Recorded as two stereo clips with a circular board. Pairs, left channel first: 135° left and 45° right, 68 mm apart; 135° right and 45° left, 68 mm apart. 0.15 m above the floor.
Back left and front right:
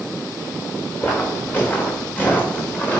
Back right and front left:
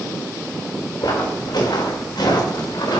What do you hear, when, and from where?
1.0 s footsteps: 160° right, 5 m; by 3.0 s 155° right, 4 m